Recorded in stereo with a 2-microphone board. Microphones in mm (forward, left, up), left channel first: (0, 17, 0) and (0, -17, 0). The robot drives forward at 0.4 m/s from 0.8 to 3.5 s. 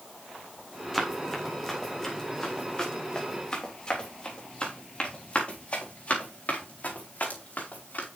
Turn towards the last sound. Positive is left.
turn(degrees=60)  # may be behind; listen again after turning